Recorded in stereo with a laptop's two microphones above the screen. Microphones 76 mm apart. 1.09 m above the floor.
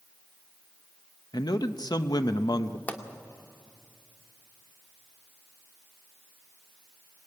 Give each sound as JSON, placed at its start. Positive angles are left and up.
{"t": 1.3, "sound": "a man speaking", "side_deg": 60, "distance_m": 0.8}
{"t": 2.9, "sound": "a pop", "side_deg": 20, "distance_m": 2.0}